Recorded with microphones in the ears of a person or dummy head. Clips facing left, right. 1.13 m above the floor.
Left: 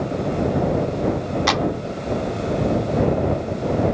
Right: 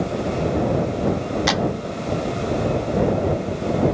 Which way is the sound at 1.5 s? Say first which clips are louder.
Left 1 dB; 10° right (ahead or behind).